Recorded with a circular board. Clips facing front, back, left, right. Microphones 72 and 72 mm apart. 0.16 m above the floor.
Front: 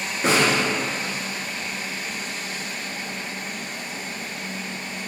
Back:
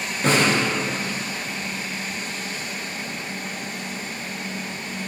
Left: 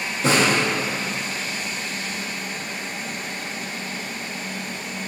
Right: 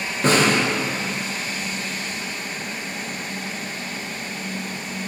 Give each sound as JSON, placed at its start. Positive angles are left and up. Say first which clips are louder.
{"t": 0.2, "sound": "a snare drum", "louder": "even, right 1 dB", "azimuth_deg": -80, "distance_m": 1.1}